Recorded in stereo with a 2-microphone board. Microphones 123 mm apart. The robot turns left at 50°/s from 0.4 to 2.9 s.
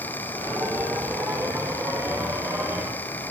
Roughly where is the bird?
I don't hear a bird.